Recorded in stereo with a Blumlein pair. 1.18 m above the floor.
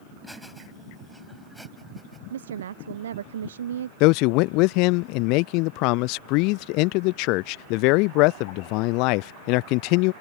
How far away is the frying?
No frying in this recording.